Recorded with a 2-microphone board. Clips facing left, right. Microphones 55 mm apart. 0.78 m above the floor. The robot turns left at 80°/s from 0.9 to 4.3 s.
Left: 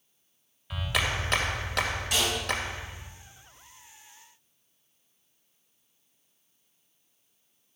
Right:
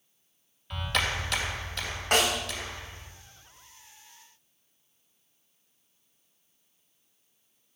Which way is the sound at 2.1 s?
50° right (ahead or behind).